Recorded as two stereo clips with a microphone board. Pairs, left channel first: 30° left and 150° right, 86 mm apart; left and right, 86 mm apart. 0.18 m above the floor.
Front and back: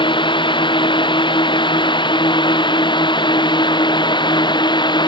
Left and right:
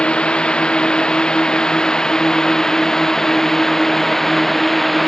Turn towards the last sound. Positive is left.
turn(degrees=0)